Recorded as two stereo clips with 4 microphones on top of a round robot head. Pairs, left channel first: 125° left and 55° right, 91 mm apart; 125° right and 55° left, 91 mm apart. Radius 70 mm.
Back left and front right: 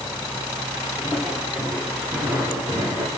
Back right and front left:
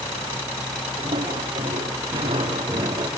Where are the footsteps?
20° left, 6.5 m; by 3.1 s 10° left, 4.5 m.